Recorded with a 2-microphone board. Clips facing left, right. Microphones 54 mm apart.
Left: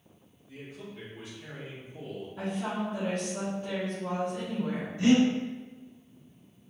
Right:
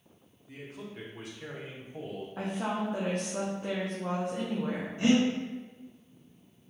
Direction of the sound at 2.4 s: 65° right (ahead or behind).